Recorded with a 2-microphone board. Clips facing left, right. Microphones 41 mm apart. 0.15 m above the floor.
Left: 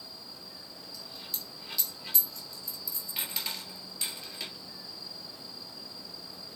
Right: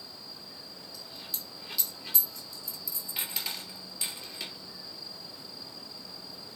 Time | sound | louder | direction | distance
0.9 | a dropped coin | left 1 dB | 5° right (ahead or behind) | 1.4 m